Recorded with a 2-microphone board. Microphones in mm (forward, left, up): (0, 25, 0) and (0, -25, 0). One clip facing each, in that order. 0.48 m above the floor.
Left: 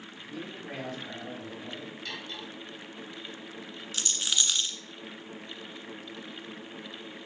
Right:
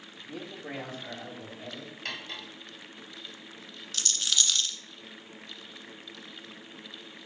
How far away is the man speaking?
About 3.5 m.